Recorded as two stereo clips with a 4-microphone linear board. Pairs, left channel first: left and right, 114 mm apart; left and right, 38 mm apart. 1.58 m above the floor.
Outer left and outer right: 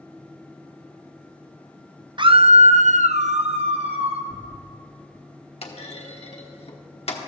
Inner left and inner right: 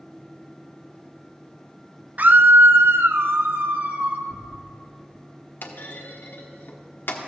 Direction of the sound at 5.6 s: 55° left (ahead or behind).